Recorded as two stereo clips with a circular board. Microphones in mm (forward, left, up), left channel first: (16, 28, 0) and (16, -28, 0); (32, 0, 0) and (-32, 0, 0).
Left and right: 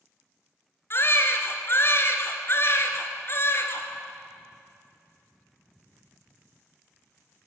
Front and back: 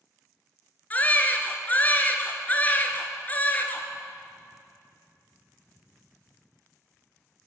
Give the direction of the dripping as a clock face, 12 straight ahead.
I don't hear dripping.